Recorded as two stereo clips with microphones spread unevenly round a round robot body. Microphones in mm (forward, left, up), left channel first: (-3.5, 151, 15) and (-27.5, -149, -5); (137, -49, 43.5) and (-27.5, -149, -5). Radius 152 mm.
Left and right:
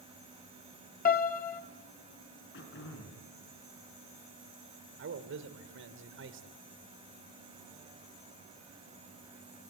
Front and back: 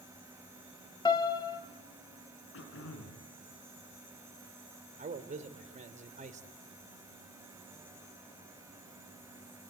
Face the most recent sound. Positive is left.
turn(degrees=-130)